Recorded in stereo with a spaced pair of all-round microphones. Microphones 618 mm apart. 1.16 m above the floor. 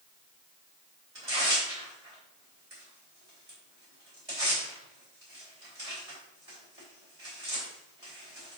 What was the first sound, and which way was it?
Tearing paper, 60° right (ahead or behind).